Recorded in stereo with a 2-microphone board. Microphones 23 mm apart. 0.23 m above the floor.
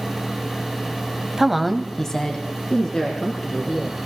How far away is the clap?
No clap in this recording.